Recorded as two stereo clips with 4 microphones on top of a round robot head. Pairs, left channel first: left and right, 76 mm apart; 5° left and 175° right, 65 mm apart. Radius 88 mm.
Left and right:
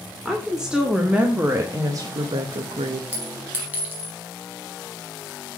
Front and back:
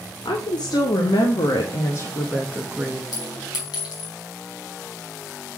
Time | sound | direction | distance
0.2 | a woman speaking | 5° right | 2 m
3.1 | a clink | 25° right | 4.5 m